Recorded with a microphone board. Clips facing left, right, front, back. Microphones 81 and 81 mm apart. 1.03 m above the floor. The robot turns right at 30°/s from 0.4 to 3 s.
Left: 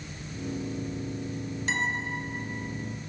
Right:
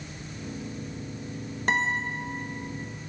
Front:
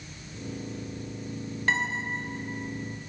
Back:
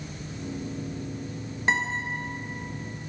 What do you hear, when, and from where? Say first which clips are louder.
1.7 s a guitar: right 4 dB, back 2 dB; 110° right, 1.3 m; by 2.0 s 100° right, 1.3 m